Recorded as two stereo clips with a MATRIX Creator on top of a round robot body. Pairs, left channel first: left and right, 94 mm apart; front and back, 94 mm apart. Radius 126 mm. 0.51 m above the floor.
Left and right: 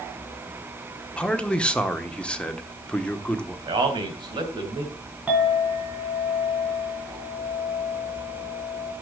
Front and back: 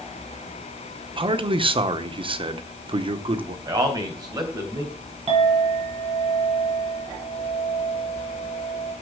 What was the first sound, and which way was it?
A man speaking, 170° left.